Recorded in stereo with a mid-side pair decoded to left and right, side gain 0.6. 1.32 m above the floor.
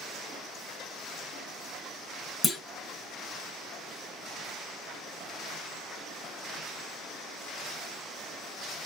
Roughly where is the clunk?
Ahead left.